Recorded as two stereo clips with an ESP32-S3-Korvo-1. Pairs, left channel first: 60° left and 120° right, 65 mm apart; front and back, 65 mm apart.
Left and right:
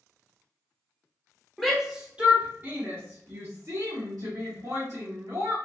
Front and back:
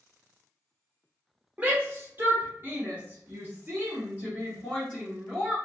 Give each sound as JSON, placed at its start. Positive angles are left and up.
{"t": 1.6, "sound": "a shout", "azimuth_deg": 150, "distance_m": 1.0}